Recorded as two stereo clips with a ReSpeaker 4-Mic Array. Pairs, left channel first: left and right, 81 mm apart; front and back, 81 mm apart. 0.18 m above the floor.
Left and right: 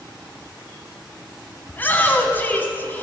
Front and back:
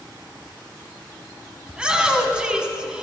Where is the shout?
115° left, 1.3 m.